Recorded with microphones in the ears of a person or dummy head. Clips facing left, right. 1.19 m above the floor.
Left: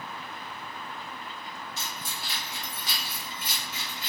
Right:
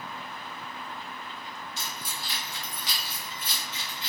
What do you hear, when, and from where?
1.8 s keys jangling: 75° right (ahead or behind), 1.1 m; by 4.1 s 10° right (ahead or behind), 1.0 m